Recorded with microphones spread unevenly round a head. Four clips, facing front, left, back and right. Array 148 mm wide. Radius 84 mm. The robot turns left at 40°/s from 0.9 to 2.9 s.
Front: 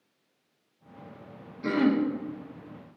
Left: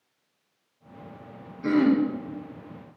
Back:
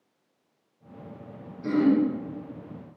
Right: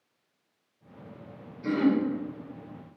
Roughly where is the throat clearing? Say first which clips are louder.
Left 4 dB, back 3 dB; ahead left.